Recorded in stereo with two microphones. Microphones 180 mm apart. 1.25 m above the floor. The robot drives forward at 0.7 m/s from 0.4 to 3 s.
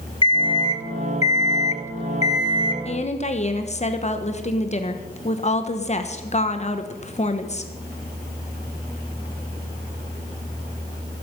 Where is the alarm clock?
30° left (ahead or behind), 1.3 m.